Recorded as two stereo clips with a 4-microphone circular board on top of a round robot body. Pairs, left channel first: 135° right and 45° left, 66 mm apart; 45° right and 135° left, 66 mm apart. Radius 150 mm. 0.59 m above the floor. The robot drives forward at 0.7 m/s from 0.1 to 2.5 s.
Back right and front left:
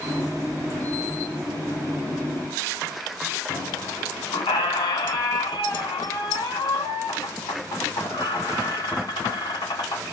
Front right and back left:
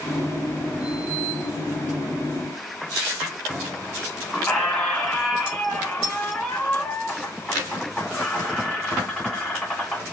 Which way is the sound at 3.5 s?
130° right.